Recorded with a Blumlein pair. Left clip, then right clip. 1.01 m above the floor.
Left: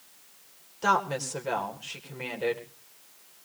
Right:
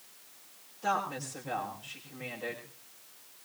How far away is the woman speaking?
About 3.5 m.